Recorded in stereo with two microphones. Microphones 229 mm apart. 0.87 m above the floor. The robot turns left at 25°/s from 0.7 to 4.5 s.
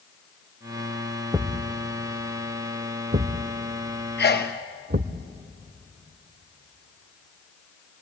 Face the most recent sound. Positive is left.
turn(degrees=45)  # may be behind; listen again after turning